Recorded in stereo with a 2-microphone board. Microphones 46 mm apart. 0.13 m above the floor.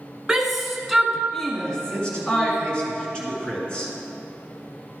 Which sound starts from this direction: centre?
A shout, at 0.3 s.